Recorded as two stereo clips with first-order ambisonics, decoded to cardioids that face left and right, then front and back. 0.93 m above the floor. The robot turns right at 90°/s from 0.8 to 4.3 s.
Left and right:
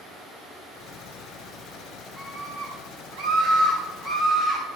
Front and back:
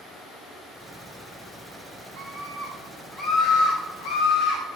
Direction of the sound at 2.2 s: 165° left.